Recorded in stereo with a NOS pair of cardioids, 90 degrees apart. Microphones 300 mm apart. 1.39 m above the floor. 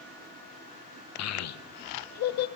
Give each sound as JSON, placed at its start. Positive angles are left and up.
{"t": 1.2, "sound": "a child speaking", "azimuth_deg": 65, "distance_m": 0.8}